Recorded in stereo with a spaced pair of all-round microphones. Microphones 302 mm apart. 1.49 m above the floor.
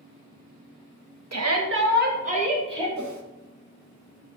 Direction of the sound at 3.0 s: 65° right (ahead or behind).